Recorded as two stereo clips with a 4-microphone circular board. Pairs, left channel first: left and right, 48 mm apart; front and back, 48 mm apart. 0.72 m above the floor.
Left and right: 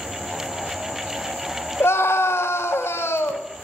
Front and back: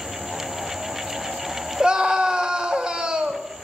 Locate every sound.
1.8 s a scream: 110° left, 3.5 m